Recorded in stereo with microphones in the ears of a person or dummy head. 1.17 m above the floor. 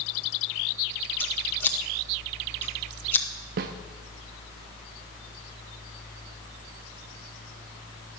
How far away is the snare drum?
About 0.6 m.